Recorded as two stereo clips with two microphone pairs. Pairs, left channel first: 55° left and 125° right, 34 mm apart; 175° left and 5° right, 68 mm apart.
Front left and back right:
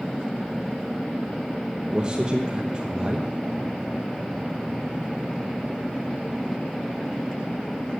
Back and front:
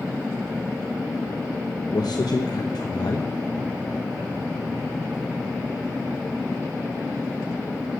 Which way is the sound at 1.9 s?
170° left.